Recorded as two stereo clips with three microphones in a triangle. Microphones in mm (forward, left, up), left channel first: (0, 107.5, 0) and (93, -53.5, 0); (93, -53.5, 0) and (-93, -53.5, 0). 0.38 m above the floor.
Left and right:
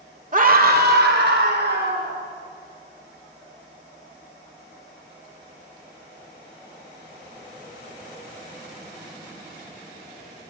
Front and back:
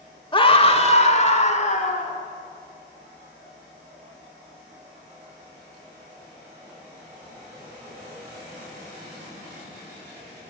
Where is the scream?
55° right, 1.2 m; by 2.2 s 50° right, 3.5 m.